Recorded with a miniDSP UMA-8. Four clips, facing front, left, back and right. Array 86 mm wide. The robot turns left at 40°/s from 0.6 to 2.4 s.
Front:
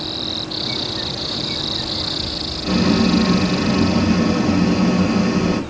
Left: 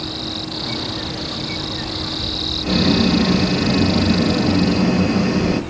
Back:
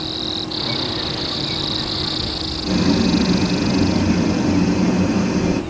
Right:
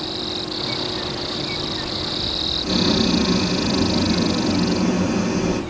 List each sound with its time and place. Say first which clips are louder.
2.6 s boiling: left 3 dB, front 1 dB; 55° left, 1.4 m